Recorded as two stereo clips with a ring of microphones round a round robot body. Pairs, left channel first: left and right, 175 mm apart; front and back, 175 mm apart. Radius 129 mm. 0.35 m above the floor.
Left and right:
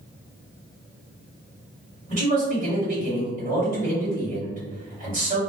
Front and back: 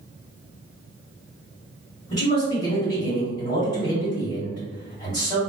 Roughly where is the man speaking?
Right.